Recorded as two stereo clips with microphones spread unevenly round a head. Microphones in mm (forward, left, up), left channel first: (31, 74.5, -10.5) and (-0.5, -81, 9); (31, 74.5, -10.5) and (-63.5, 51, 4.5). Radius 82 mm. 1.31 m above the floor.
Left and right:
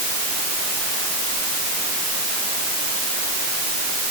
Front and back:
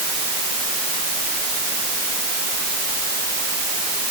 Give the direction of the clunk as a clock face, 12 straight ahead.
No clunk in this recording.